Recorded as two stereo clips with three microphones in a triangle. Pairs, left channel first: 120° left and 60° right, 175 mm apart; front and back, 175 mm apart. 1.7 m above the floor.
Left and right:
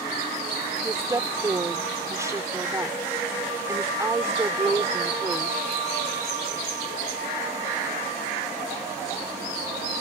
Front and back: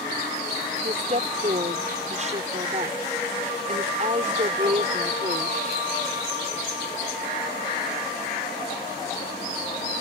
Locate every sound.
0.8 s a woman speaking: 135° right